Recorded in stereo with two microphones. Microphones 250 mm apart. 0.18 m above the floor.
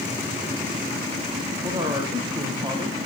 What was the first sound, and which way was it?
A man speaking, 20° right (ahead or behind).